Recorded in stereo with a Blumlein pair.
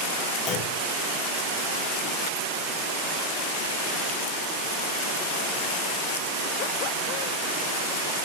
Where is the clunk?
35° left, 2.0 m.